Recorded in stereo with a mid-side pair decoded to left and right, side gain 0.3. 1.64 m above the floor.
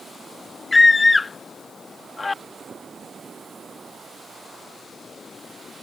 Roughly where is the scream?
Ahead left.